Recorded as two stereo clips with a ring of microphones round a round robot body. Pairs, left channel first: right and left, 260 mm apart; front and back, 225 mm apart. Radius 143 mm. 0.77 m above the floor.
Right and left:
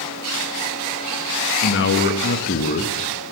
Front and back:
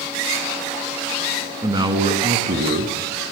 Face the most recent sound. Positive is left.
turn(degrees=-155)